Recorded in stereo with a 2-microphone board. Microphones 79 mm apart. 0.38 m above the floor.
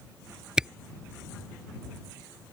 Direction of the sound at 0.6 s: 10° right (ahead or behind).